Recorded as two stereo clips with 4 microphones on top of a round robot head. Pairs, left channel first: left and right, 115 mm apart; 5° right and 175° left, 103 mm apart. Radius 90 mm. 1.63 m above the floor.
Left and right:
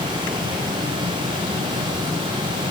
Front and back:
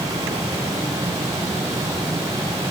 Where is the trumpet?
No trumpet in this recording.